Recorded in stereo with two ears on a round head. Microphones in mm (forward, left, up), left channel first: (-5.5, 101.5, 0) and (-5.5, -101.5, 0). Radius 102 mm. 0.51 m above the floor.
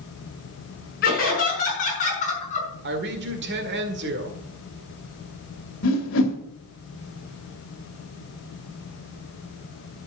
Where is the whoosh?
60° left (ahead or behind), 2 m.